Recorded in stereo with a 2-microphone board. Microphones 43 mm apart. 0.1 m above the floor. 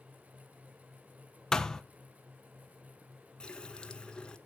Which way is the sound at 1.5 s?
15° left (ahead or behind).